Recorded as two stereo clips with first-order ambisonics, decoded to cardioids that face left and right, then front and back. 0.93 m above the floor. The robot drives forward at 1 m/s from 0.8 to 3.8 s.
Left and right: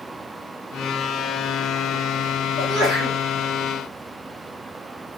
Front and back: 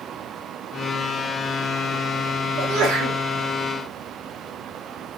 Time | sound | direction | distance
2.6 | a sneeze | 150° right | 2 m